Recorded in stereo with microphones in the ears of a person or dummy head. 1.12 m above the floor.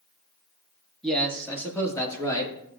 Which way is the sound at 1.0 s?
10° left (ahead or behind).